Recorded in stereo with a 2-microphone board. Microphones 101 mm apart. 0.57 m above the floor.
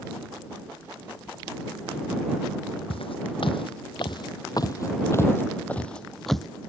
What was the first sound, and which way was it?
Footsteps, 75° left (ahead or behind).